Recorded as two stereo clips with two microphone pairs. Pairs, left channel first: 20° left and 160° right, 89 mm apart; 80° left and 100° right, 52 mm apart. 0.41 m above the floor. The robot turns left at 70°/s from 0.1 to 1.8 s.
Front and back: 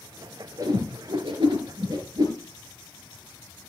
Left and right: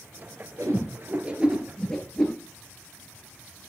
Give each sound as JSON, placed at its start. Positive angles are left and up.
{"t": 0.6, "sound": "a whoosh", "azimuth_deg": -115, "distance_m": 3.0}